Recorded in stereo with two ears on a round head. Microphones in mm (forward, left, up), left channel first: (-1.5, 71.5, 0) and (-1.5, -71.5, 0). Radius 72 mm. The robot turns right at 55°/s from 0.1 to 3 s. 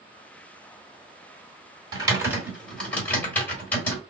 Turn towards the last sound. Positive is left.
turn(degrees=10)  # may be behind; listen again after turning